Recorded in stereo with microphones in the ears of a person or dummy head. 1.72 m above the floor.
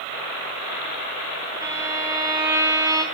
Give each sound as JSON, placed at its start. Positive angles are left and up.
{"t": 1.6, "sound": "a violin", "side_deg": -15, "distance_m": 1.6}